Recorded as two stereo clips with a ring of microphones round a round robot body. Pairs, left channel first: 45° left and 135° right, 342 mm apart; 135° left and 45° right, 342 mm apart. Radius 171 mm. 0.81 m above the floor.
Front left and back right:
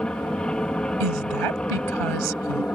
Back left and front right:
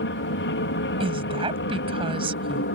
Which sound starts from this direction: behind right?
A woman speaking, at 1.0 s.